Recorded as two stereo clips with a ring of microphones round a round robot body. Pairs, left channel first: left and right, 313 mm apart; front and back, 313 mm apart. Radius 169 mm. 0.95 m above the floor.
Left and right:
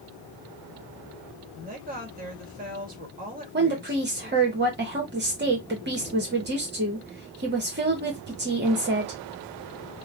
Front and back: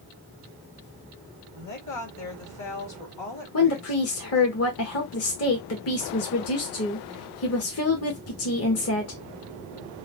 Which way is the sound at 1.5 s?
30° right.